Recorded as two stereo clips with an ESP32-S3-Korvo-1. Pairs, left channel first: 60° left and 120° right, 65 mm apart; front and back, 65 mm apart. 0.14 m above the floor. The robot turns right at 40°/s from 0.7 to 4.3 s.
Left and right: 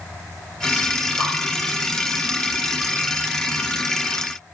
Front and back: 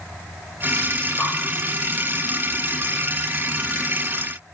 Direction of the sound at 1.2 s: 35° right.